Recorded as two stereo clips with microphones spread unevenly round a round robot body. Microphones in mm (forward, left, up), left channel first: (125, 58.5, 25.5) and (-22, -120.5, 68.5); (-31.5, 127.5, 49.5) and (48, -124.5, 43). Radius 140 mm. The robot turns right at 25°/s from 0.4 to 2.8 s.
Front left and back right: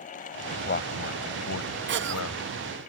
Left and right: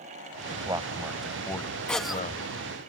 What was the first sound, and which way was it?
A man speaking, straight ahead.